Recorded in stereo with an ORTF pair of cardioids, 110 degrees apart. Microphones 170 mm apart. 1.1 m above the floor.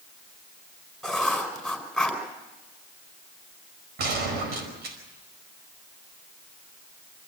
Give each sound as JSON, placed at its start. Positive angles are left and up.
{"t": 1.0, "sound": "writing", "azimuth_deg": 0, "distance_m": 5.0}
{"t": 4.0, "sound": "a gunshot", "azimuth_deg": -70, "distance_m": 5.0}